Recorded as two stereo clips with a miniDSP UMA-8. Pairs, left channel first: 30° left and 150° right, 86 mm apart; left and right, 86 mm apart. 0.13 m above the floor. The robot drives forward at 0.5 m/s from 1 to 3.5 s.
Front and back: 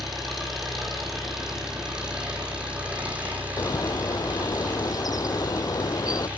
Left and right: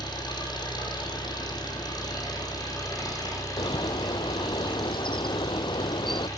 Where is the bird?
75° left, 0.7 m.